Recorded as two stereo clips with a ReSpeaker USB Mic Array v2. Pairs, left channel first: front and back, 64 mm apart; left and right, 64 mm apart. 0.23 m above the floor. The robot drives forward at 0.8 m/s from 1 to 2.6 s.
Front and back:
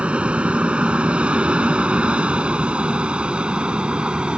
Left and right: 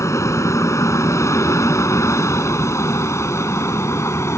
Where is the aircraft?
110° left.